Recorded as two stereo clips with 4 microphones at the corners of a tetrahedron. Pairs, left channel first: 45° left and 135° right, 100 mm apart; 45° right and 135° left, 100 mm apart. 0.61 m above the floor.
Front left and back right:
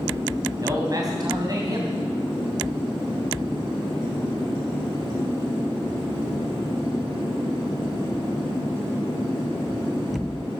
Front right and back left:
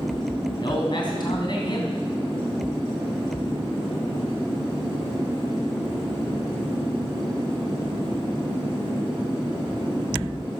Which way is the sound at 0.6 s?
85° right.